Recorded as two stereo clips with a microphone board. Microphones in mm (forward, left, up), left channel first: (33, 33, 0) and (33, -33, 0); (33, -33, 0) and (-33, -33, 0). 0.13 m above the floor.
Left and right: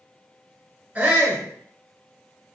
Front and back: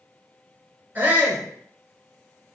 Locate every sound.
0.9 s a shout: 140° right, 1.3 m